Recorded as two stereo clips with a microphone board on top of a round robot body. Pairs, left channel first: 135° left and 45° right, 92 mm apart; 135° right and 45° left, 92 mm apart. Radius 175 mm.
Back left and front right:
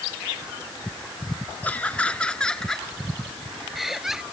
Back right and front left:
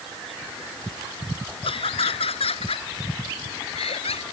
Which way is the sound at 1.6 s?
150° right.